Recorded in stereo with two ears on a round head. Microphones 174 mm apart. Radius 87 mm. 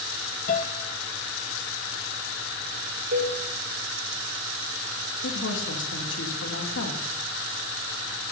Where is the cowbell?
60° right (ahead or behind), 5 m.